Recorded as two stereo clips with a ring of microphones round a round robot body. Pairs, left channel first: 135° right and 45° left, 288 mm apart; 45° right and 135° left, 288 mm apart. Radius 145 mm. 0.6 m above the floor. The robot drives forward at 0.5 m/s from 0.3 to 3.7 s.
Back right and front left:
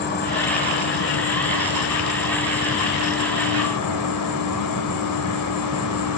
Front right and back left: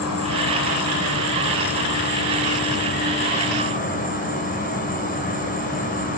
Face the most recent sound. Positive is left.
turn(degrees=-105)